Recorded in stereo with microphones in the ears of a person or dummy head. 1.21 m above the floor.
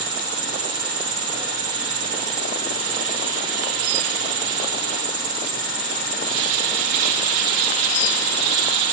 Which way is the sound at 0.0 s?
30° right (ahead or behind).